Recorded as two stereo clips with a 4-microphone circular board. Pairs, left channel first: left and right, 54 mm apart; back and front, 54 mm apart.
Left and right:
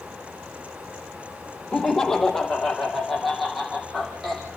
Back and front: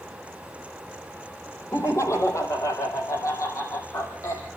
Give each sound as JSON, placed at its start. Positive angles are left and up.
{"t": 1.7, "sound": "laughter", "azimuth_deg": 165, "distance_m": 4.0}